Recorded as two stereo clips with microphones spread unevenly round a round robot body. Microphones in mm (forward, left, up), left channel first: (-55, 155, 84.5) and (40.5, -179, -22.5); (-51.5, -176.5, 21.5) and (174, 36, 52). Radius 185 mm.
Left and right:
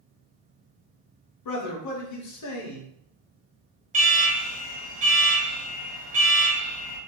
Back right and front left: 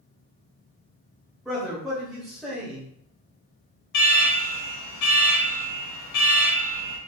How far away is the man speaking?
About 1.0 m.